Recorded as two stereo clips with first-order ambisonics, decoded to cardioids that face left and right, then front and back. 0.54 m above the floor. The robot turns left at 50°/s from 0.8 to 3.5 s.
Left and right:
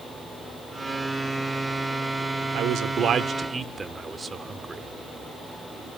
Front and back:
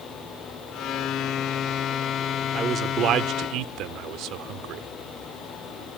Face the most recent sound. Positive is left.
turn(degrees=-160)